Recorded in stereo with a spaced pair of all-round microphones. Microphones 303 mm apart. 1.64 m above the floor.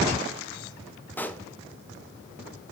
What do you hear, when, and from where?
1.2 s a pop: 5° left (ahead or behind), 0.9 m